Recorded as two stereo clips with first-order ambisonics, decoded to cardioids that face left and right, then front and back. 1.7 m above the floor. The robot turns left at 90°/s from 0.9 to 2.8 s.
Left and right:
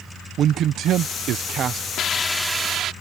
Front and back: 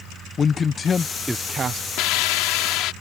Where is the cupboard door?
No cupboard door in this recording.